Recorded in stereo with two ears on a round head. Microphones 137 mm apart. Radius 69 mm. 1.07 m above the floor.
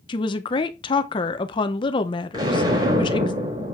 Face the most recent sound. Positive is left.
turn(degrees=-30)  # may be behind; listen again after turning